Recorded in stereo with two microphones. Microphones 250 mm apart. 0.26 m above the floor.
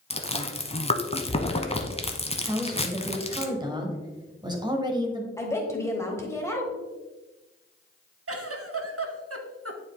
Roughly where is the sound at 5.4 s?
Centre.